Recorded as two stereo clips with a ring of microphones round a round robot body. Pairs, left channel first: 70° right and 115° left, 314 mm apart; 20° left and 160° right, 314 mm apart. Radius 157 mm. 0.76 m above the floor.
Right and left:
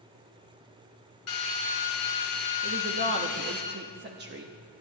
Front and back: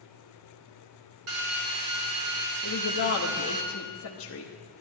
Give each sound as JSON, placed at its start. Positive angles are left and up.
{"t": 1.3, "sound": "a drill", "azimuth_deg": -115, "distance_m": 2.5}
{"t": 2.6, "sound": "a woman speaking", "azimuth_deg": 60, "distance_m": 1.0}